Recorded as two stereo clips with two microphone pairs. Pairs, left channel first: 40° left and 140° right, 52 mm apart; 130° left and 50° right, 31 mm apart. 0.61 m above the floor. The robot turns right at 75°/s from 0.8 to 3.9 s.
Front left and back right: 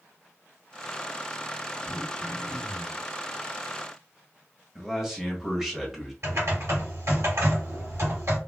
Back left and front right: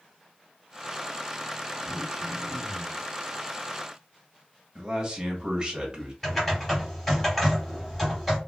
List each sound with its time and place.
1.9 s throat clearing: 90° right, 1.3 m; by 3.0 s straight ahead, 1.3 m
4.8 s a man speaking: 65° right, 1.2 m
6.2 s typing on a keyboard: 145° right, 2.5 m